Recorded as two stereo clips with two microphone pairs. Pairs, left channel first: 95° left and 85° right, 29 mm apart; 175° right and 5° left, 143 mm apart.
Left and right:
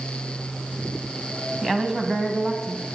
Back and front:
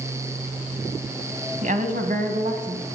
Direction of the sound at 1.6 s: 10° left.